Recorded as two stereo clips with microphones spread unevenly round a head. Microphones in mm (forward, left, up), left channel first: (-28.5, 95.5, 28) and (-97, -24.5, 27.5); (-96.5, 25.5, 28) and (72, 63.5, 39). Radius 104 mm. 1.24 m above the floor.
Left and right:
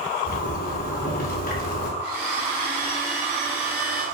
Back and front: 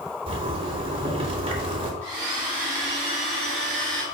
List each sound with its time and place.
0.3 s a zipper: 70° left, 2.5 m
2.0 s a blender: 40° right, 4.5 m